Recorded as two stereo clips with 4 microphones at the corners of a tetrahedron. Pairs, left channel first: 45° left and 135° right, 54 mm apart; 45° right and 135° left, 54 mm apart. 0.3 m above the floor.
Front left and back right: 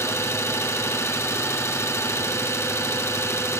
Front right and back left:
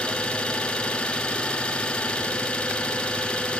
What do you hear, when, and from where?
0.0 s an engine running: 25° left, 1.6 m